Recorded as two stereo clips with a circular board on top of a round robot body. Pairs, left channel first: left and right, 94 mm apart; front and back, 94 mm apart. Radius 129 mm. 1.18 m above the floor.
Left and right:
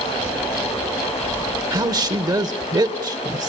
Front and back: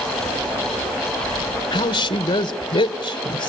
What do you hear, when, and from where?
1.7 s a woman speaking: 45° right, 1.1 m